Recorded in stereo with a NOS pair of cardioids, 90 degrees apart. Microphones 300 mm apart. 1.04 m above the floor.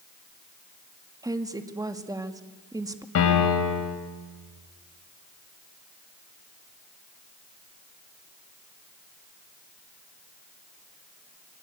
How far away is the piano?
About 5.5 m.